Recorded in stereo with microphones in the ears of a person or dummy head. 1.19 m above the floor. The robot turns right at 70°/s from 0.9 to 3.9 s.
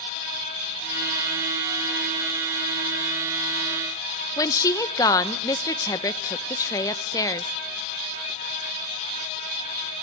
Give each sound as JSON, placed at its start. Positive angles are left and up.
{"t": 4.4, "sound": "a woman speaking", "side_deg": 20, "distance_m": 0.8}